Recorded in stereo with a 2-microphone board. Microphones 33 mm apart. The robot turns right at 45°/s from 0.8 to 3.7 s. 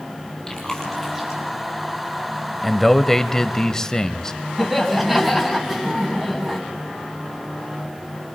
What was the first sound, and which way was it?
Chewing, 15° left (ahead or behind).